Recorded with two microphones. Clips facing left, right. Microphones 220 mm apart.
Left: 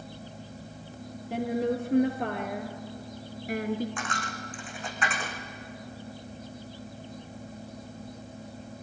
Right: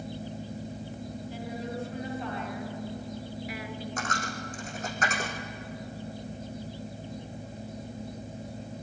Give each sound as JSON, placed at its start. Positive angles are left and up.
{"t": 1.3, "sound": "a woman speaking", "side_deg": 70, "distance_m": 3.0}
{"t": 4.0, "sound": "a dropped coin", "side_deg": -45, "distance_m": 3.5}